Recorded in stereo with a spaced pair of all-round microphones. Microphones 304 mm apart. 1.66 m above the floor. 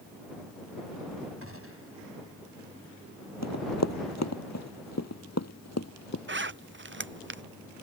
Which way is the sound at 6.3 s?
40° right (ahead or behind).